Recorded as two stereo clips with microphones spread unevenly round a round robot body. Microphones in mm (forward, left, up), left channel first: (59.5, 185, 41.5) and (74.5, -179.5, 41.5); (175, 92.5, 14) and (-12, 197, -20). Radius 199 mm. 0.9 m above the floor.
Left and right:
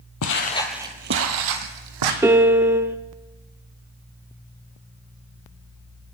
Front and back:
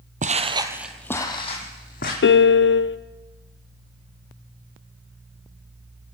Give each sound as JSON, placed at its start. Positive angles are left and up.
{"t": 0.2, "sound": "footsteps", "azimuth_deg": 105, "distance_m": 1.0}
{"t": 2.2, "sound": "a piano", "azimuth_deg": -5, "distance_m": 0.5}